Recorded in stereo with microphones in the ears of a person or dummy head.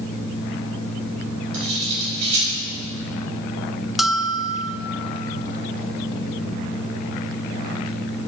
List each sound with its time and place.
0.0 s a fan: 25° left (ahead or behind), 1.3 m
1.5 s cutlery clinking: 35° right (ahead or behind), 4 m
4.0 s a bell: centre (ahead or behind), 0.6 m